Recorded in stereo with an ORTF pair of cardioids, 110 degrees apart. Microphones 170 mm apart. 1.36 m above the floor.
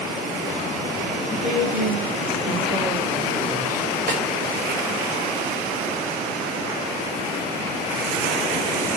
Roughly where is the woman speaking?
Ahead right.